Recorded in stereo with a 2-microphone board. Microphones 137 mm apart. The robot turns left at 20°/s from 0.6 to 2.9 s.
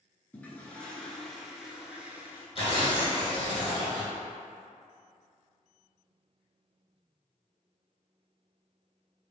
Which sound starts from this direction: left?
Tearing paper, at 2.5 s.